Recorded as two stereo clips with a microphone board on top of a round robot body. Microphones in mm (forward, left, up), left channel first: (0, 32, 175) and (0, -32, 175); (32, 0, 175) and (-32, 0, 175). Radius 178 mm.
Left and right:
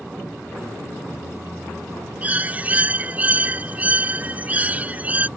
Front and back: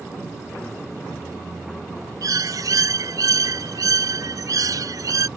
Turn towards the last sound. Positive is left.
turn(degrees=-155)